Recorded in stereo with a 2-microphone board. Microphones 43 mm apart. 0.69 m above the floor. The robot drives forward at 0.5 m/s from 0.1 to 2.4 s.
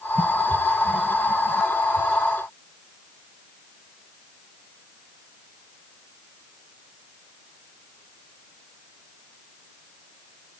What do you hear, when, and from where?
Only background noise.